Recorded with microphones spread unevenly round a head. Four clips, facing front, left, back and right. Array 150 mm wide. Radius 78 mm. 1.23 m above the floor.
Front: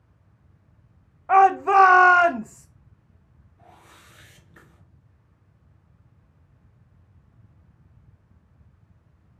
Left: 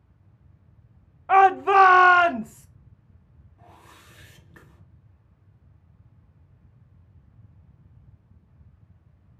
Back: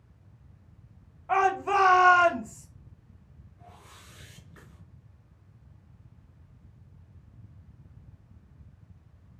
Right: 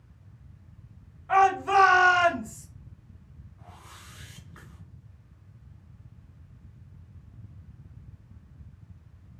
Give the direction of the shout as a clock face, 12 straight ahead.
11 o'clock.